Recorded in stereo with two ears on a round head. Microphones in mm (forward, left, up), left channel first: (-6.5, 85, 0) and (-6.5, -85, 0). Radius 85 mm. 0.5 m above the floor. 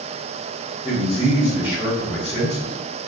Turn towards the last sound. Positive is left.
turn(degrees=30)  # may be behind; listen again after turning